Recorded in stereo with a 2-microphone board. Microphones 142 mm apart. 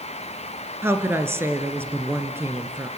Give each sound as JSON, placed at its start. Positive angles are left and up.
{"t": 0.8, "sound": "a woman speaking", "side_deg": -15, "distance_m": 1.6}